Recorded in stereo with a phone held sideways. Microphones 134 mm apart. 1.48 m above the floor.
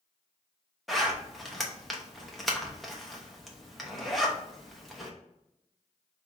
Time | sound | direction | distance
0.9 | a zipper | centre (ahead or behind) | 1.0 m